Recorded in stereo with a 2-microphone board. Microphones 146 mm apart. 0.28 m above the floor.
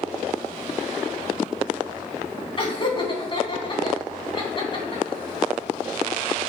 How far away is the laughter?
About 3 m.